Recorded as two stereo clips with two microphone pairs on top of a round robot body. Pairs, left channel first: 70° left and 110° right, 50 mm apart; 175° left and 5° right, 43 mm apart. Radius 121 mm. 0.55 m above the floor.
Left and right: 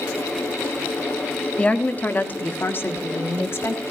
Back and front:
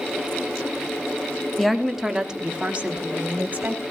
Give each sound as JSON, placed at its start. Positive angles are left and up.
{"t": 1.6, "sound": "a woman speaking", "azimuth_deg": 110, "distance_m": 1.3}